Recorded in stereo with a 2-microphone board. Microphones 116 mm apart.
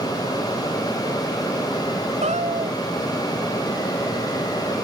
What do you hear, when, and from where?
2.2 s a cat meowing: 80° right